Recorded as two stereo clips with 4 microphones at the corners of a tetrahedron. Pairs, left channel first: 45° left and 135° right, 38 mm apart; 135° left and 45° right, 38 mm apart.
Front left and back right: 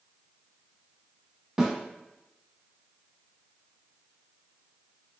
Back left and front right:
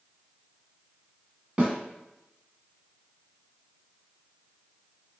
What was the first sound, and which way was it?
A snare drum, 75° right.